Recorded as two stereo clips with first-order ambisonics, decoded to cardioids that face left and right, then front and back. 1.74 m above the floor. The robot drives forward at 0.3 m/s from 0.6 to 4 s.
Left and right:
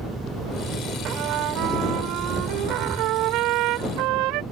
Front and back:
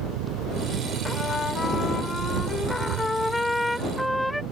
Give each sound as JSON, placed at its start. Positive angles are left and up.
{"t": 0.0, "sound": "an engine running", "azimuth_deg": -170}
{"t": 1.1, "sound": "a trumpet", "azimuth_deg": -65}